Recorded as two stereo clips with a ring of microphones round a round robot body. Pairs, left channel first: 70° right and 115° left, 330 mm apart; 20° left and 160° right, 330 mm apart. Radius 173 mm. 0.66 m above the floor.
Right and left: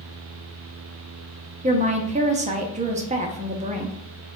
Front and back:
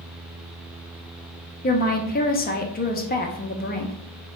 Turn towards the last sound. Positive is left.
turn(degrees=60)